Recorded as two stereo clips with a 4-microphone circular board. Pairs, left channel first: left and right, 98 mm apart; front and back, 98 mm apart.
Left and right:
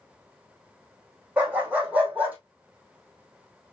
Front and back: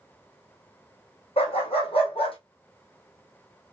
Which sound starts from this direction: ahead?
A dog barking, at 1.4 s.